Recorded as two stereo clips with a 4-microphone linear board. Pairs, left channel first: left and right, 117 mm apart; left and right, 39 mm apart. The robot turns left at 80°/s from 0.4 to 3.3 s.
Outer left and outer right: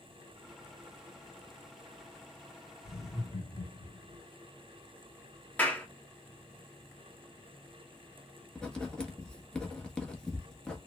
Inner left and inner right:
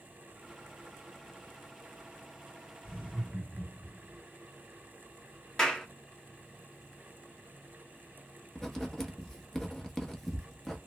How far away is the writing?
About 0.9 m.